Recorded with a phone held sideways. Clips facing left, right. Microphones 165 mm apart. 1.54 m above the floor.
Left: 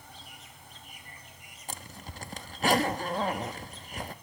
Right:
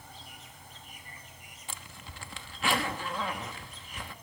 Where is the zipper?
40° left (ahead or behind), 1.1 m.